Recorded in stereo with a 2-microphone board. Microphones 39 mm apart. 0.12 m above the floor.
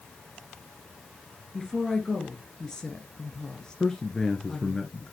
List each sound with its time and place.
1.5 s a woman speaking: 15° left (ahead or behind), 2 m
3.8 s a man speaking: 10° left (ahead or behind), 1.4 m